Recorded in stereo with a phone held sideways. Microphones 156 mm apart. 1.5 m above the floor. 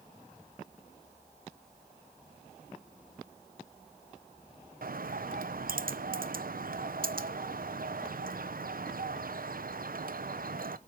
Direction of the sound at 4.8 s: 70° right (ahead or behind).